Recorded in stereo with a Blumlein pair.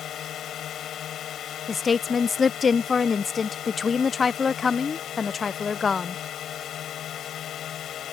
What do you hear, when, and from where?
0.0 s a drone: 30° left
1.7 s a woman speaking: 20° left